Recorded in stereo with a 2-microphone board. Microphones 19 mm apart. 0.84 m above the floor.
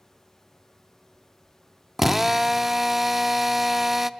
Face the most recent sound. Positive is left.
turn(degrees=-15)  # may be behind; listen again after turning